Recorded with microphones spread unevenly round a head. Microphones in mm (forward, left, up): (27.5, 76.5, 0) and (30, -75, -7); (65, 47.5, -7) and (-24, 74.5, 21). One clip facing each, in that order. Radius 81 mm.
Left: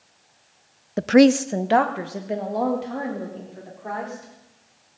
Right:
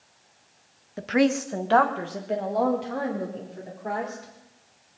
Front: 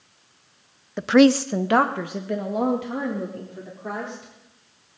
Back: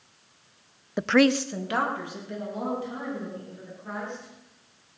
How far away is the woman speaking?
About 0.5 m.